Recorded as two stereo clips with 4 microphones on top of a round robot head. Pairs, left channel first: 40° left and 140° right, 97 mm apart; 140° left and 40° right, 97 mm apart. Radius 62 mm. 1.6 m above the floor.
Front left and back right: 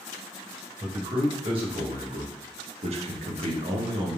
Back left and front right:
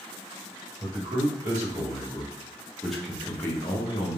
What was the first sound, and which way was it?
A man speaking, 95° right.